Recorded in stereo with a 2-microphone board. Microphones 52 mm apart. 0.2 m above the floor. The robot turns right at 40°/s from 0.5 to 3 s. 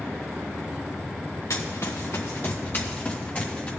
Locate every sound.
1.5 s running footsteps: 85° left, 1.3 m; by 3.7 s 25° left (ahead or behind), 2.5 m